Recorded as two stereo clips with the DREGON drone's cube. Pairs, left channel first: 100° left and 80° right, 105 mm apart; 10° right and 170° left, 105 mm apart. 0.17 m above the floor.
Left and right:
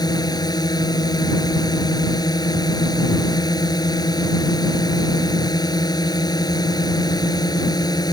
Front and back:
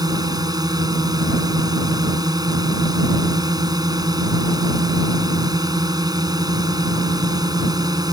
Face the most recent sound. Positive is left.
turn(degrees=135)